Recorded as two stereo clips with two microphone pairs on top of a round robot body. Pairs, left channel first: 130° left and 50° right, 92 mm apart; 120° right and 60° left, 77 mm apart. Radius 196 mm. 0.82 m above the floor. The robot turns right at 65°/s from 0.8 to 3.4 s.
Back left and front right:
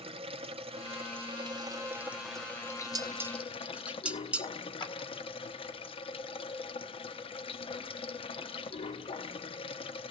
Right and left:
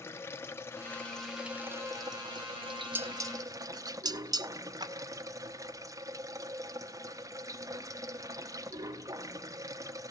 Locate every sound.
0.0 s running water: 60° right, 0.9 m; by 10.1 s 110° left, 0.9 m
3.0 s dishes clattering: straight ahead, 0.6 m; by 4.5 s 30° left, 0.6 m
4.8 s a clap: 100° left, 2.5 m